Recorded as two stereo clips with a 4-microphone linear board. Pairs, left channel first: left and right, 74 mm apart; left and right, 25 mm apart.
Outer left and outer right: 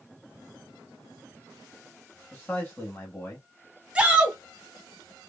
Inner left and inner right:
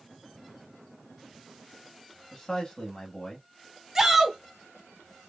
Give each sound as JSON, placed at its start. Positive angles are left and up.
{"t": 2.3, "sound": "a man speaking", "side_deg": 25, "distance_m": 1.3}
{"t": 4.0, "sound": "a shout", "side_deg": -15, "distance_m": 1.2}